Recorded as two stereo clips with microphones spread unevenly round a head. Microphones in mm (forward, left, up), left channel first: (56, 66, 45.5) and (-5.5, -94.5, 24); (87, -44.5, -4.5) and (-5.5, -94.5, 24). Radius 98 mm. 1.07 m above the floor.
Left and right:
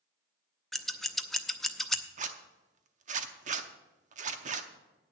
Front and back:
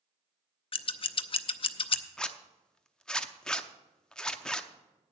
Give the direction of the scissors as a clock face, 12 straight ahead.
1 o'clock.